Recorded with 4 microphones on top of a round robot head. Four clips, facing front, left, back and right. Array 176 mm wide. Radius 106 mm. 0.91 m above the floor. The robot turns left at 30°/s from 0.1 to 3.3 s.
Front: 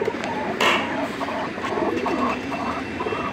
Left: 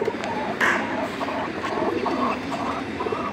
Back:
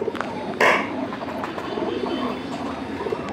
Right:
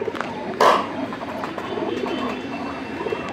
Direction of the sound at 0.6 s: 120° right.